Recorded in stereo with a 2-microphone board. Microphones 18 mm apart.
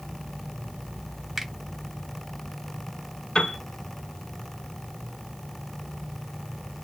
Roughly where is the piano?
Left.